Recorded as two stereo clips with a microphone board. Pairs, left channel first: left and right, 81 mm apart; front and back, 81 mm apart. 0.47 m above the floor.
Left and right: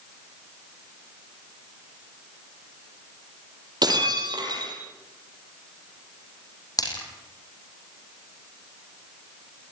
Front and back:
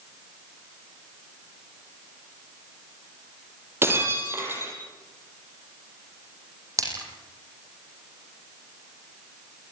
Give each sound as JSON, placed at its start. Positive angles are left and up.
{"t": 3.8, "sound": "breaking glass", "azimuth_deg": -120, "distance_m": 6.5}
{"t": 6.8, "sound": "a splash", "azimuth_deg": 130, "distance_m": 7.0}